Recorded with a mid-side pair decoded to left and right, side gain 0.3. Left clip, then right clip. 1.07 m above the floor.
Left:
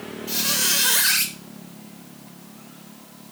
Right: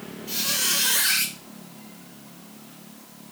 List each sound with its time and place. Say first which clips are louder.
0.3 s a squeak: left 2 dB; 50° left, 0.9 m